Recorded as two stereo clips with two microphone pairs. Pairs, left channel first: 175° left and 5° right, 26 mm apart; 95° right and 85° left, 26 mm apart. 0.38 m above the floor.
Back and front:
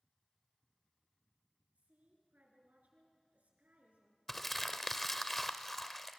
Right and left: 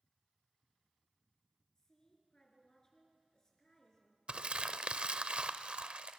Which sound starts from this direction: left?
Crumpling, at 4.3 s.